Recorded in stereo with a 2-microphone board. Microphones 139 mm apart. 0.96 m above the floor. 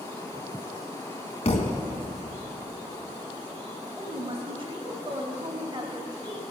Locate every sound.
1.4 s a thud: 50° left (ahead or behind), 1.4 m
4.0 s a woman speaking: 35° right (ahead or behind), 1.6 m